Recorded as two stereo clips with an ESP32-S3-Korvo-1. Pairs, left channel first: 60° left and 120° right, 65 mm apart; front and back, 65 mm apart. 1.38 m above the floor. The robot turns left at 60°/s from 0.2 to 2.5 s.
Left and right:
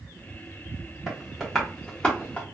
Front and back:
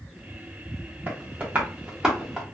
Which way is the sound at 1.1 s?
170° left.